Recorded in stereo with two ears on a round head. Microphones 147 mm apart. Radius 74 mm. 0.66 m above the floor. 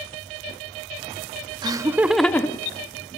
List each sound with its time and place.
1.6 s laughter: 25° right (ahead or behind), 0.6 m; by 3.2 s 40° left (ahead or behind), 0.7 m